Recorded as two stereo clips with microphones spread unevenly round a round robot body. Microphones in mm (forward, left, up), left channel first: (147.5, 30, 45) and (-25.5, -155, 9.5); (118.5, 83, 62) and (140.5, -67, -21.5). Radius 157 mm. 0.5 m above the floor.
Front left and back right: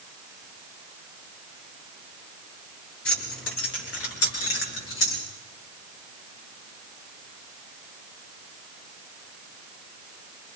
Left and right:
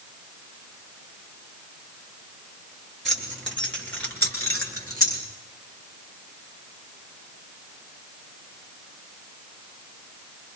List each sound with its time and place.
3.0 s keys jangling: 10° left, 6 m; by 5.2 s 30° left, 6 m